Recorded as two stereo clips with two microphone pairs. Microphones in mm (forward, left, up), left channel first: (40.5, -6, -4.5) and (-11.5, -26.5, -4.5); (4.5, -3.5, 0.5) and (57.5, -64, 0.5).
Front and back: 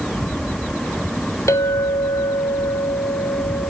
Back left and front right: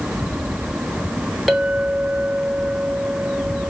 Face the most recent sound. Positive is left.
turn(degrees=35)